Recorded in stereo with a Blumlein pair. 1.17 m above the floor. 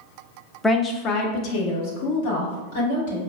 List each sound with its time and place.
0.6 s a woman speaking: 10° left, 0.5 m; by 3.2 s 55° left, 2 m